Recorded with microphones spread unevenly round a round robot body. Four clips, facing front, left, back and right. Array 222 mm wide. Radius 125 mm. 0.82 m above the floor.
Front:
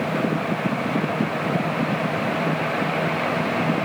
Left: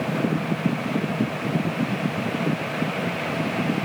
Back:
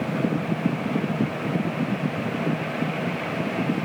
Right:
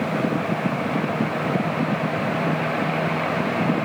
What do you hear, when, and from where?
Only background noise.